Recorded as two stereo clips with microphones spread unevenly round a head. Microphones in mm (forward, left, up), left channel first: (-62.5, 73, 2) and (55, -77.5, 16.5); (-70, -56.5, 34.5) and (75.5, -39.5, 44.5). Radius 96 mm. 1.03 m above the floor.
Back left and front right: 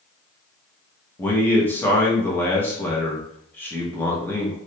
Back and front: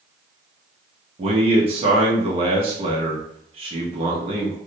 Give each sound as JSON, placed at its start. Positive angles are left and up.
{"t": 1.2, "sound": "a man speaking", "azimuth_deg": 50, "distance_m": 1.1}